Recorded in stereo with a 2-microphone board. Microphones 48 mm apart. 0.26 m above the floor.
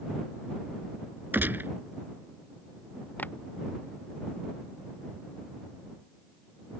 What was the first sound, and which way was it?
A gunshot, 45° right (ahead or behind).